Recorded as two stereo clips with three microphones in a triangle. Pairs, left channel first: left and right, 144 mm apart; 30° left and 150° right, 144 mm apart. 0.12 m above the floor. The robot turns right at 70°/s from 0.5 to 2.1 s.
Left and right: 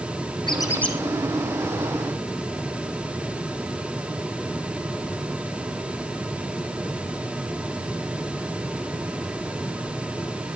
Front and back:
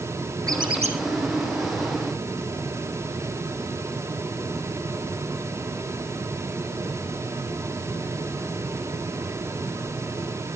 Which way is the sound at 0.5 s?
145° left.